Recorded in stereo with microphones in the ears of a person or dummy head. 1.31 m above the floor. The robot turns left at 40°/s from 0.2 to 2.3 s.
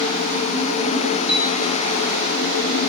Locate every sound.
1.3 s a piano: 5° right (ahead or behind), 3.5 m; by 1.5 s 5° left (ahead or behind), 3.5 m